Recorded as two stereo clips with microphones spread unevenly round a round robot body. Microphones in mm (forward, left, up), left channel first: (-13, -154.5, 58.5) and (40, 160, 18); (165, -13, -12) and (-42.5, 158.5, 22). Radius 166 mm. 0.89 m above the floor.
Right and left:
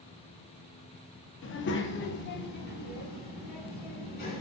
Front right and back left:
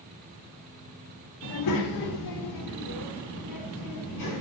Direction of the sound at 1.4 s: 45° right.